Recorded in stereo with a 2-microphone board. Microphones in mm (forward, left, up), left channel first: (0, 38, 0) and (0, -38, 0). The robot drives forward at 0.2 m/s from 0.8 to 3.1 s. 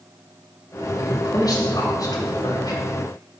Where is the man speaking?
55° left (ahead or behind), 1.1 m; by 2.8 s 50° left (ahead or behind), 1.2 m.